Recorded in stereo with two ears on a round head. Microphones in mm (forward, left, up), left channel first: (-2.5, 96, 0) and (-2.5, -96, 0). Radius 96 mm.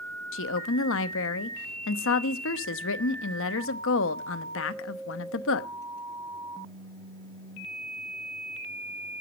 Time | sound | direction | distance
0.3 | a woman speaking | 65° left (ahead or behind) | 0.9 m